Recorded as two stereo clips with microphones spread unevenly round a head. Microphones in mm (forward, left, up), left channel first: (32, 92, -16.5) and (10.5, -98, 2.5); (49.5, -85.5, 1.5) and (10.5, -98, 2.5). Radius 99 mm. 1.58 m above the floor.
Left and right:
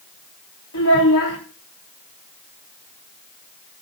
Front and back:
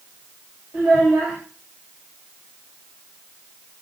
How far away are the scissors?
I don't hear scissors.